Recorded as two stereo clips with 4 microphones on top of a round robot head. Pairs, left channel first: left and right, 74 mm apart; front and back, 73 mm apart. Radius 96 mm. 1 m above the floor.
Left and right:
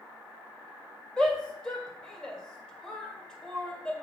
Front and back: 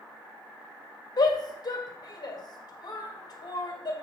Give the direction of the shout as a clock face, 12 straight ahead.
12 o'clock.